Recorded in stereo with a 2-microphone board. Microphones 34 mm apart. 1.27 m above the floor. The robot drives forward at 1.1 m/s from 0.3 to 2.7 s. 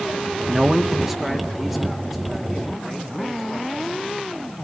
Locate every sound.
0.5 s a man speaking: 15° right (ahead or behind), 0.5 m; by 4.1 s 5° right (ahead or behind), 3 m